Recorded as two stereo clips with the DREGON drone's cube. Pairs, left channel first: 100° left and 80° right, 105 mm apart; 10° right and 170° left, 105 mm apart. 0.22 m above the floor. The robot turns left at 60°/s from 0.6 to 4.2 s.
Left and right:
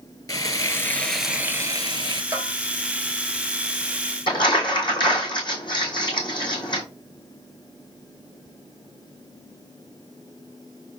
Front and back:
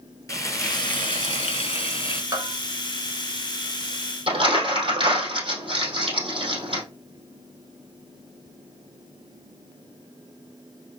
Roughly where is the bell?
Behind right.